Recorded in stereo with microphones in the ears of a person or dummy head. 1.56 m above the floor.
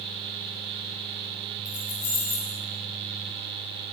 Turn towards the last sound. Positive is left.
turn(degrees=55)  # may be behind; listen again after turning